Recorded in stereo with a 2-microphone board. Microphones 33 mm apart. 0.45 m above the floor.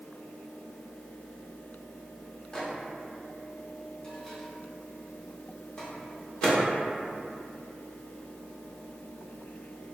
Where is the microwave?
20° left (ahead or behind), 0.5 m.